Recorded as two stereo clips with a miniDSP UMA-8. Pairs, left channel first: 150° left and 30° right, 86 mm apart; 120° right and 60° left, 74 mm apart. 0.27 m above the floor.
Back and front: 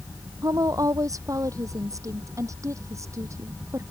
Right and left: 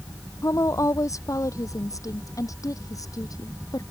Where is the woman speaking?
75° right; by 3.8 s 85° right.